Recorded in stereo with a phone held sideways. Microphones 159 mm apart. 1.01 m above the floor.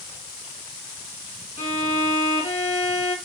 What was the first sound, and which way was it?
A violin, 45° left (ahead or behind).